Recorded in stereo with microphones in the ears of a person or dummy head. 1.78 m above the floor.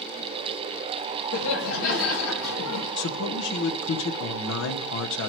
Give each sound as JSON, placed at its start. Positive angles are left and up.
{"t": 1.3, "sound": "laughter", "side_deg": 75, "distance_m": 3.0}
{"t": 3.0, "sound": "a man speaking", "side_deg": 70, "distance_m": 0.9}